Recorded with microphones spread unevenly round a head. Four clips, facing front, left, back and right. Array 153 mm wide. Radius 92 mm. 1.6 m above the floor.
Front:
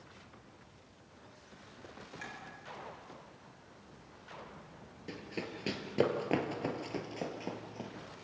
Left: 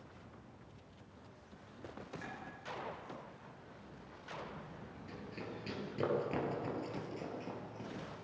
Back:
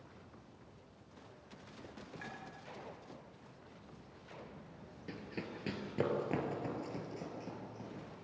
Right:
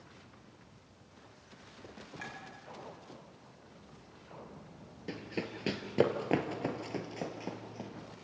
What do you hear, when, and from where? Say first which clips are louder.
2.2 s a clink: right 4 dB, front 2 dB; 70° right, 8 m
5.1 s running footsteps: right 8 dB, front 3 dB; 85° right, 2 m; by 7.9 s 35° right, 2.5 m